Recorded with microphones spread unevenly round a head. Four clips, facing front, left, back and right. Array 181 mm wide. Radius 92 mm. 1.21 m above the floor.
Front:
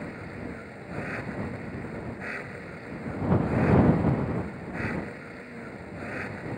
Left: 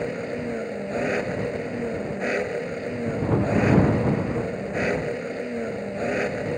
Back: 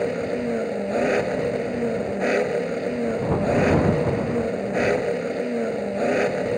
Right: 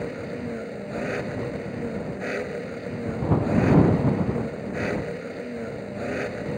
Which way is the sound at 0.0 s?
175° left.